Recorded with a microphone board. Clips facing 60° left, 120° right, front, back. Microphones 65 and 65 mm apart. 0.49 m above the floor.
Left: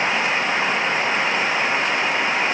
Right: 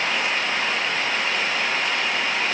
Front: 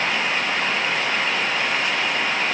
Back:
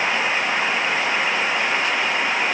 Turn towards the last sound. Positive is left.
No sound to turn to.